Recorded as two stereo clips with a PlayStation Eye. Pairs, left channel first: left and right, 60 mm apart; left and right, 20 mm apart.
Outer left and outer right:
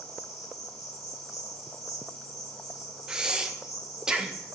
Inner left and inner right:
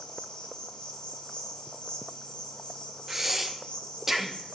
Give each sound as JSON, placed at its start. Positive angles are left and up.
{"t": 0.0, "sound": "an insect", "side_deg": 70, "distance_m": 2.0}
{"t": 3.1, "sound": "breathing", "side_deg": -15, "distance_m": 0.7}